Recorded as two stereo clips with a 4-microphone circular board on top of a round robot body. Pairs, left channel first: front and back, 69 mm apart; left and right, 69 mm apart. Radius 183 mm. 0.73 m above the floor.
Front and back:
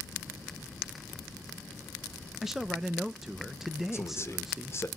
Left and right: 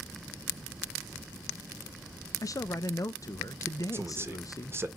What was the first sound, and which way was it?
A man speaking, 95° left.